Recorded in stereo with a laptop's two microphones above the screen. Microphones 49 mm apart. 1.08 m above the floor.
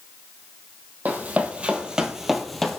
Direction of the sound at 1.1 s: 35° right (ahead or behind).